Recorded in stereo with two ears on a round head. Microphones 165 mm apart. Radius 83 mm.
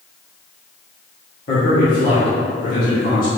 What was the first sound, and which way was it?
A man speaking, 55° left (ahead or behind).